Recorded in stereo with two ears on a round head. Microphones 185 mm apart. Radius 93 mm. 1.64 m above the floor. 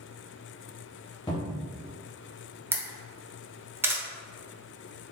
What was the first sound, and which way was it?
A cupboard door, 20° left (ahead or behind).